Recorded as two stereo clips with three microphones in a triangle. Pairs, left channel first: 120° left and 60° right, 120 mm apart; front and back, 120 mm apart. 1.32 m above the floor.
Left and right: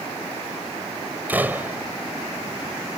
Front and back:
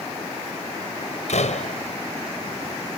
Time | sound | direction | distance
1.3 | a door slam | 15° left | ?